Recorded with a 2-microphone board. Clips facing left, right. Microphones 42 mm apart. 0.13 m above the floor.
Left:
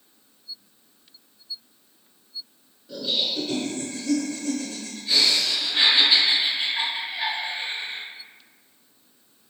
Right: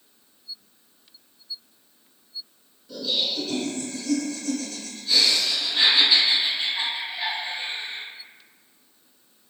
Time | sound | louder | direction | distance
2.9 | laughter | even | 15° left (ahead or behind) | 1.1 m